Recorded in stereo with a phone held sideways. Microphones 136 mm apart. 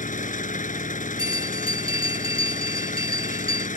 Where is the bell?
40° left (ahead or behind).